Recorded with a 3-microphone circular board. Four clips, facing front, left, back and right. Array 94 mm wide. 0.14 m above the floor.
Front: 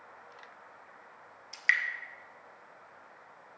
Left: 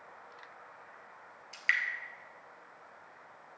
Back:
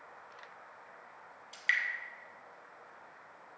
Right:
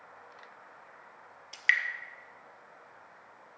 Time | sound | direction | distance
1.5 | dripping | 75° right | 0.6 m